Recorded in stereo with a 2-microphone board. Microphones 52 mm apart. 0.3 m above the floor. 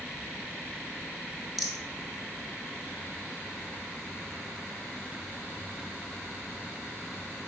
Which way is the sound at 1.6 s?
Centre (ahead or behind).